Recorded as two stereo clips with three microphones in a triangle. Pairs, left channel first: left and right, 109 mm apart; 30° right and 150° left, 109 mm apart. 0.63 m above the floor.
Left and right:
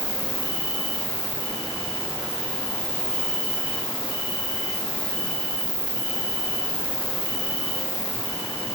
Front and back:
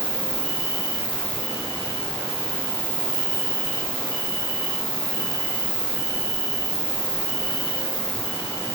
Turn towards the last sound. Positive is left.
turn(degrees=15)